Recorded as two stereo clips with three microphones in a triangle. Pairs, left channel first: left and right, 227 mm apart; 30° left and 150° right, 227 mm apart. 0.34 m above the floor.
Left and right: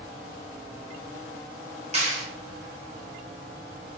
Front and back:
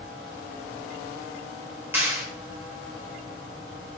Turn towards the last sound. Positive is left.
turn(degrees=-80)